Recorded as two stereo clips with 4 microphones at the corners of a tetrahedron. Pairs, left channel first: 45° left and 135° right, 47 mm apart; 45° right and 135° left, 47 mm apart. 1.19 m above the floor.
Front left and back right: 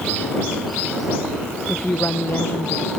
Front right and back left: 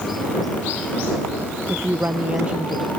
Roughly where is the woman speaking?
Left.